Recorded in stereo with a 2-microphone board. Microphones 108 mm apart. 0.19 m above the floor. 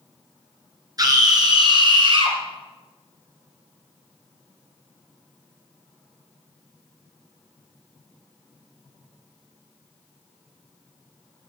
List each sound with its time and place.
1.0 s a scream: 35° right (ahead or behind), 2.5 m; by 2.4 s 50° right (ahead or behind), 4 m